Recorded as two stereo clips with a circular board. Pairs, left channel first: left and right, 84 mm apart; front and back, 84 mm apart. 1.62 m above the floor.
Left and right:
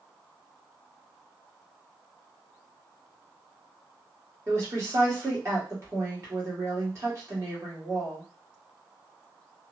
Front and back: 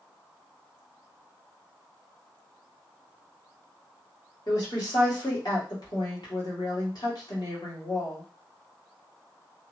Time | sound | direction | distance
4.5 | a woman speaking | 35° right | 1.4 m